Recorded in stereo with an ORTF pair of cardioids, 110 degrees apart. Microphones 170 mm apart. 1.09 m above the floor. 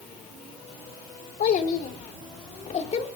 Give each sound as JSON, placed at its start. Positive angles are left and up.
{"t": 1.4, "sound": "a child speaking", "azimuth_deg": 60, "distance_m": 3.0}